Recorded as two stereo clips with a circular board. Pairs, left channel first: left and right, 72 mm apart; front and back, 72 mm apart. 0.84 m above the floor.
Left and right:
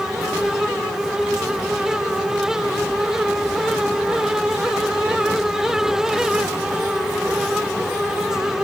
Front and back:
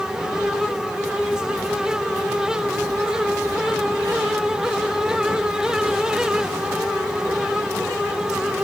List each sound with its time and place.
Only background noise.